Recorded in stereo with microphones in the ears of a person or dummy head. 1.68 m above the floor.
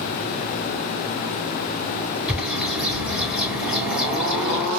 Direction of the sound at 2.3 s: 5° right (ahead or behind).